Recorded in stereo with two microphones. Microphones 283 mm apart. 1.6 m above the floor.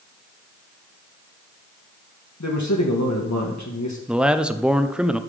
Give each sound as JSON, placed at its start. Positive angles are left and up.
{"t": 2.4, "sound": "a man speaking", "side_deg": 75, "distance_m": 1.5}
{"t": 4.1, "sound": "a man speaking", "side_deg": -5, "distance_m": 0.7}